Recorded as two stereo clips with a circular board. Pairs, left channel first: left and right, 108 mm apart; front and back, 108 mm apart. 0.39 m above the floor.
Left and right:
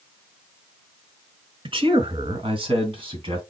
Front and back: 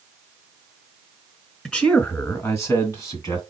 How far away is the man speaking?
About 1.2 m.